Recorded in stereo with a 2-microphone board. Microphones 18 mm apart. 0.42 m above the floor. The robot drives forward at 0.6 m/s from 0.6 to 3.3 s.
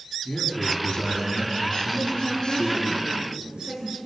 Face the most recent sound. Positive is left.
turn(degrees=-55)  # may be behind; listen again after turning